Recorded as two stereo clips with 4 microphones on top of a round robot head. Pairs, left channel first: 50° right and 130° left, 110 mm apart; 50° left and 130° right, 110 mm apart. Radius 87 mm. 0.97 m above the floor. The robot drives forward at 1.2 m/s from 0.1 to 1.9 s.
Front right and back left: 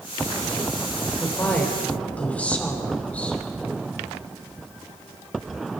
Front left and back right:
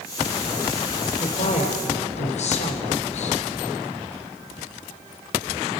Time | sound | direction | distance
1.2 | a woman speaking | 25° left | 4 m